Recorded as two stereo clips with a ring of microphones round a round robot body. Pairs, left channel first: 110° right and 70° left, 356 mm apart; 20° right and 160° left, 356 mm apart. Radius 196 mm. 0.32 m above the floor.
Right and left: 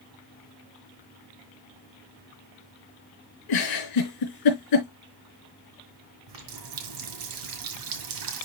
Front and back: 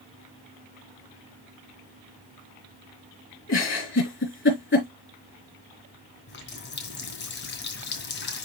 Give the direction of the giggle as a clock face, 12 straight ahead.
3 o'clock.